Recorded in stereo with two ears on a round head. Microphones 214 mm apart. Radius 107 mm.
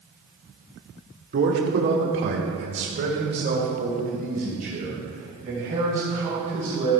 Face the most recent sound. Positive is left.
turn(degrees=-30)  # may be behind; listen again after turning